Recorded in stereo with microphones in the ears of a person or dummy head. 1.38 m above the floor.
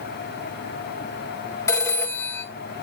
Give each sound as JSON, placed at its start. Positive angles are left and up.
{"t": 1.7, "sound": "a phone ringing", "side_deg": 15, "distance_m": 1.3}